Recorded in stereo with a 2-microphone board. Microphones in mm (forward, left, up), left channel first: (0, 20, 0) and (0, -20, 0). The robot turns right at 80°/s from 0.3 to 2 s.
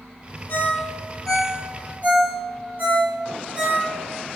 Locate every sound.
0.5 s a ringtone: 65° left (ahead or behind), 3 m; by 3.9 s 45° right (ahead or behind), 3 m